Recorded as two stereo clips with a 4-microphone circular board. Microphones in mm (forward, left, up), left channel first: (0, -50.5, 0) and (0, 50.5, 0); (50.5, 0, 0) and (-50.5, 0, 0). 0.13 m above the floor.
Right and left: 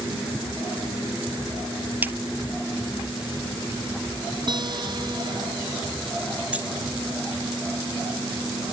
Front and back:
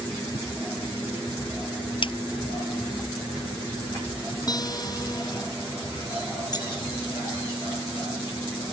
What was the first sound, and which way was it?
A splash, 20° left.